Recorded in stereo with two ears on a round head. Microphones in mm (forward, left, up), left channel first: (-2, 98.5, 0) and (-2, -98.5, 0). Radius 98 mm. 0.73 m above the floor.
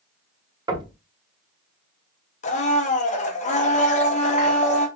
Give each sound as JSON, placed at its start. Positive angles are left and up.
{"t": 0.7, "sound": "knocking", "side_deg": -20, "distance_m": 0.7}
{"t": 2.4, "sound": "a blender", "side_deg": 35, "distance_m": 0.7}